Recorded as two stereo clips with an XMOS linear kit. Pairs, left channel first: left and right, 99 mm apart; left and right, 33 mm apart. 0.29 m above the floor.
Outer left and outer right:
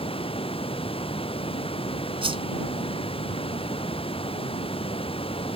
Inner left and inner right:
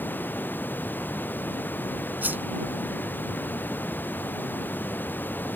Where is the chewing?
No chewing in this recording.